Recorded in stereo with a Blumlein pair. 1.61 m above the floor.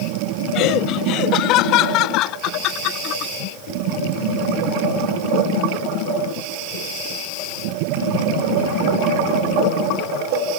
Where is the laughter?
40° left.